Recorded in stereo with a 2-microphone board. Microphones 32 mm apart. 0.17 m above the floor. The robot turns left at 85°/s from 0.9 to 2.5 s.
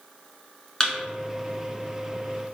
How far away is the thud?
About 0.9 m.